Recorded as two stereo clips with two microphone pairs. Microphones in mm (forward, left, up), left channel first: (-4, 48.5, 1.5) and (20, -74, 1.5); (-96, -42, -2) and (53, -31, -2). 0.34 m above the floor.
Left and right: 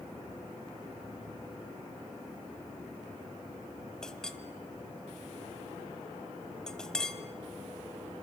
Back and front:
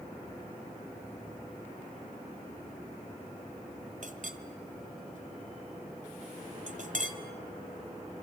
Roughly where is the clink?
Ahead.